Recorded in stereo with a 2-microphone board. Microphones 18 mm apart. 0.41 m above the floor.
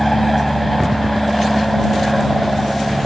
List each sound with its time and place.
0.0 s an aircraft: 5° left (ahead or behind)